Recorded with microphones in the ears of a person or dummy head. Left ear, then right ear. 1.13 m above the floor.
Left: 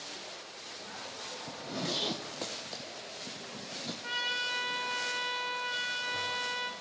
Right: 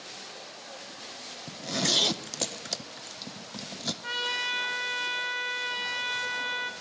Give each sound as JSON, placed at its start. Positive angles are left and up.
{"t": 1.5, "sound": "a zipper", "side_deg": -55, "distance_m": 0.6}
{"t": 4.0, "sound": "a trumpet", "side_deg": -15, "distance_m": 1.1}